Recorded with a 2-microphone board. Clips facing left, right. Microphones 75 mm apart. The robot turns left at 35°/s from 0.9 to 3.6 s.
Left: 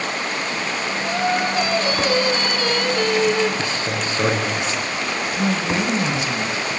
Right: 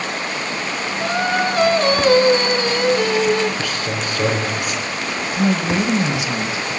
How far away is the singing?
About 1.4 m.